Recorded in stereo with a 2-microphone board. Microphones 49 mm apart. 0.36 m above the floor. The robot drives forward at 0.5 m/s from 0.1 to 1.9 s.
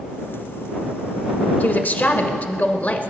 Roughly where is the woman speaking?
Left.